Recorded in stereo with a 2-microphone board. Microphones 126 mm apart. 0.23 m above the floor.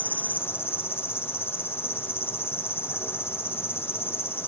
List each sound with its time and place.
0.0 s an insect: 20° left (ahead or behind)